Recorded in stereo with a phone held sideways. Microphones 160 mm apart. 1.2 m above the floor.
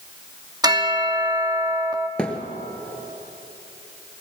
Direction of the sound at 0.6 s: 25° right (ahead or behind).